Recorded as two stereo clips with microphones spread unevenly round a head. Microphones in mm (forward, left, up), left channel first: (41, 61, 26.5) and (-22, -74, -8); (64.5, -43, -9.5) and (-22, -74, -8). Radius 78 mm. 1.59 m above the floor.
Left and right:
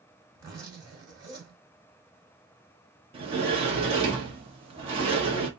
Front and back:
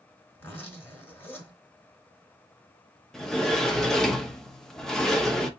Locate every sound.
0.3 s a zipper: 40° right, 2 m
3.1 s a sliding door: 60° right, 1.0 m